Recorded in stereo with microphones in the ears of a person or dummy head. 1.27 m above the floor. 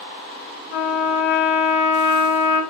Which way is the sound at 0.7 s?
60° left (ahead or behind).